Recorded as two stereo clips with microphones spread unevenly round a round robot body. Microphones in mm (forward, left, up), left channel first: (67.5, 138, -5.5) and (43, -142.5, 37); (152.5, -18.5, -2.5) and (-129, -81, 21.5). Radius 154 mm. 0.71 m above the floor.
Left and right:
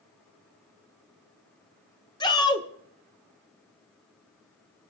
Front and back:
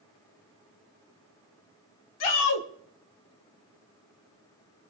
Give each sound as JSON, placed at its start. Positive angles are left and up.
{"t": 2.2, "sound": "a shout", "azimuth_deg": 15, "distance_m": 2.5}